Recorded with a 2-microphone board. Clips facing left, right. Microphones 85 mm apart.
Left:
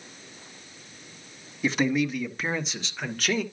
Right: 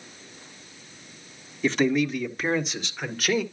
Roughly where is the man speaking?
Centre.